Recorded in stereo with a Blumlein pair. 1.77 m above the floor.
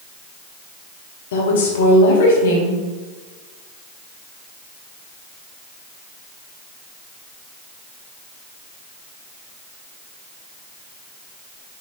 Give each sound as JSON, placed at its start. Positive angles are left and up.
{"t": 1.3, "sound": "a woman speaking", "azimuth_deg": 60, "distance_m": 1.0}